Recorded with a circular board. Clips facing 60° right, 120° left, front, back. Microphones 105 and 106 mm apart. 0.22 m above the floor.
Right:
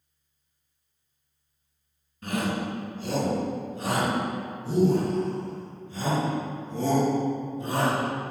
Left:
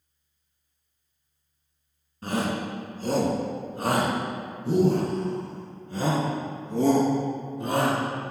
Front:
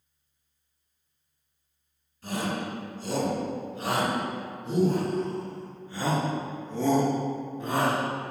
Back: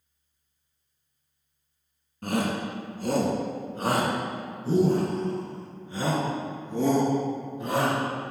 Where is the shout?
175° left, 1.8 m; by 8.0 s 95° left, 3 m.